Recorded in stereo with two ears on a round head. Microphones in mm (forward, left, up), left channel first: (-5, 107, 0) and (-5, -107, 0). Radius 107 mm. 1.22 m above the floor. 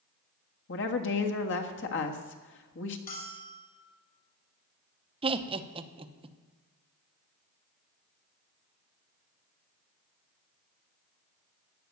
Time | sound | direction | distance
0.7 | a woman speaking | 55° left (ahead or behind) | 1.6 m
3.1 | a bell | 40° left (ahead or behind) | 6 m
5.2 | laughter | 25° right (ahead or behind) | 1.0 m